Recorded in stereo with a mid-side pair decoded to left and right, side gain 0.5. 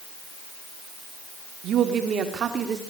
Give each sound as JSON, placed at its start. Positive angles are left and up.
{"t": 1.6, "sound": "a woman speaking", "azimuth_deg": -60, "distance_m": 3.5}